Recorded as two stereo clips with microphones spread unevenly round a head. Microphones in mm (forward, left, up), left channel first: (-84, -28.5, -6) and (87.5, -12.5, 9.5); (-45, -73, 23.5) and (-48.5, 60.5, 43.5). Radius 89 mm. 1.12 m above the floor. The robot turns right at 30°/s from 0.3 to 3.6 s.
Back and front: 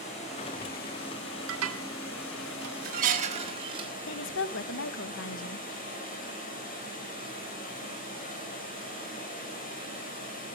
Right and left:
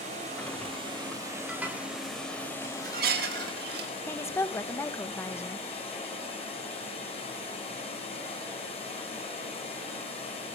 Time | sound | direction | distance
0.0 | running water | 130° left | 5.5 m
1.5 | dishes clattering | 5° left | 1.7 m
4.1 | a woman speaking | 160° right | 0.8 m